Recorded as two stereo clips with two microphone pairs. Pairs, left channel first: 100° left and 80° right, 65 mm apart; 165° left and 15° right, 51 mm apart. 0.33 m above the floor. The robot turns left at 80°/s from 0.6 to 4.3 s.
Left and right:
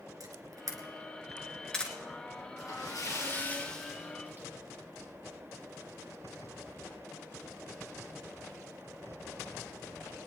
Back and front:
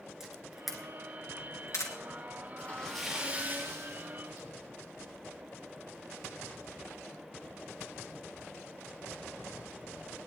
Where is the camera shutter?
90° right, 3 m; by 1.9 s 165° left, 3 m.